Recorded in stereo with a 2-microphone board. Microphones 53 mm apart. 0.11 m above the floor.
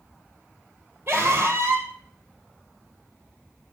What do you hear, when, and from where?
1.1 s a scream: 40° right (ahead or behind), 3 m